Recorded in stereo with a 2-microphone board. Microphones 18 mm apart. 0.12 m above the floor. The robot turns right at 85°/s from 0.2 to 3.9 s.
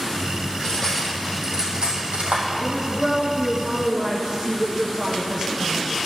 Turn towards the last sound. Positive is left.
turn(degrees=-50)